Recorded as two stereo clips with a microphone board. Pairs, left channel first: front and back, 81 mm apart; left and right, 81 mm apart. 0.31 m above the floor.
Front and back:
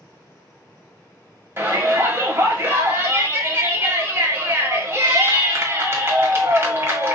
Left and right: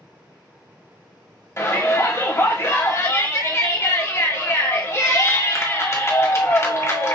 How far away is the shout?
About 1.4 m.